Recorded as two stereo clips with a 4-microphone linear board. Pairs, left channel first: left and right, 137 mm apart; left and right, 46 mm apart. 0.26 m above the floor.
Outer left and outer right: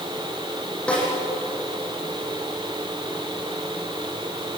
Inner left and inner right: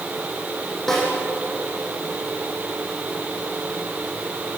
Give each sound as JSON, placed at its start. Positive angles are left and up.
{"t": 0.9, "sound": "a snare drum", "side_deg": 10, "distance_m": 9.0}